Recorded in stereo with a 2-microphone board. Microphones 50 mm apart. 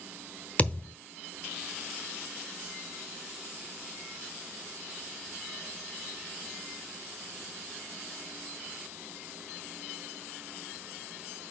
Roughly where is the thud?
Left.